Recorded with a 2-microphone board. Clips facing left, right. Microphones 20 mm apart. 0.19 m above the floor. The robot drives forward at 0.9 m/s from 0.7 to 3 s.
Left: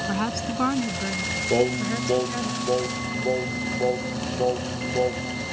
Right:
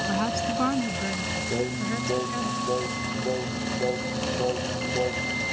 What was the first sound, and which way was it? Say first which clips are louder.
A woman speaking: right 1 dB; 5° left (ahead or behind).